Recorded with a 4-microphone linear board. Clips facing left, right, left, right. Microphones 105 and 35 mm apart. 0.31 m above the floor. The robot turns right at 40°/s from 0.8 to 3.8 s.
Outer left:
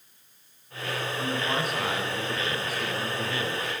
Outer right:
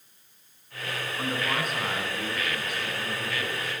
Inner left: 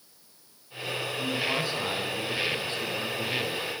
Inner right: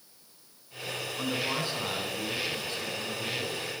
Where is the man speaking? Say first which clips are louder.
Even, inner left 2 dB; 15° right, 3 m; by 3.7 s 80° left, 3 m.